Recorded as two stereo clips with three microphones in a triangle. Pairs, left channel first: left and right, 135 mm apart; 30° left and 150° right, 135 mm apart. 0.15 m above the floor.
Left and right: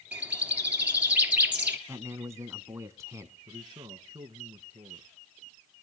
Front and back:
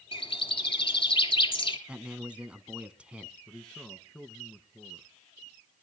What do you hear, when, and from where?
0.1 s a bird: 10° right, 2 m
1.9 s a man speaking: 85° right, 1.1 m
3.5 s a man speaking: 50° right, 1.6 m